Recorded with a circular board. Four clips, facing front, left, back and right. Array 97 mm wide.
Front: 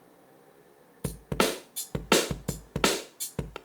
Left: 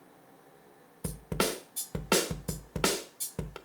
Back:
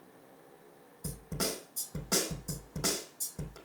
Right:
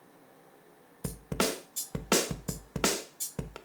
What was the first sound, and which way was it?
A snare drum, 5° right.